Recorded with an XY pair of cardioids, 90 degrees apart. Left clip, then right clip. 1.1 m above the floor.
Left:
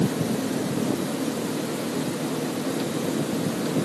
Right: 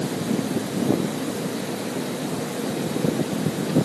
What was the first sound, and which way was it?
Only background noise.